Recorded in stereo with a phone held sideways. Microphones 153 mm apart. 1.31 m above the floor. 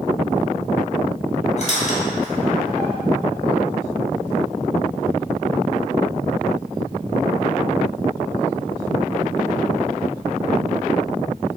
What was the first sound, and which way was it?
A squeak, 45° left (ahead or behind).